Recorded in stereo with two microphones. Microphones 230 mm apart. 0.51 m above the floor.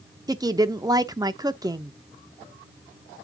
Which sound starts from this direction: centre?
A woman speaking, at 0.3 s.